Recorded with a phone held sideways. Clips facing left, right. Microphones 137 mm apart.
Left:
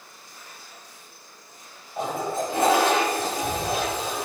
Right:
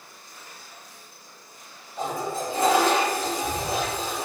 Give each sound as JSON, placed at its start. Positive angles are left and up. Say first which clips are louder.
{"t": 2.0, "sound": "a toilet flushing", "louder": "left 2 dB", "side_deg": 60, "distance_m": 1.0}